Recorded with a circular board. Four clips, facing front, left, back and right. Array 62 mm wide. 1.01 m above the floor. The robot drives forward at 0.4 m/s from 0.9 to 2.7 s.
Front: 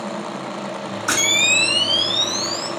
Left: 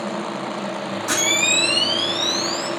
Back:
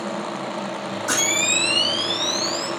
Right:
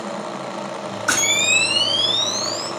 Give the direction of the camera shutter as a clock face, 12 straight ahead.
2 o'clock.